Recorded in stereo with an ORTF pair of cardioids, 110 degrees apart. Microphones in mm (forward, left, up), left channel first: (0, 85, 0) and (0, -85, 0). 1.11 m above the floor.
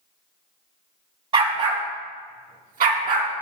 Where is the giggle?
I don't hear a giggle.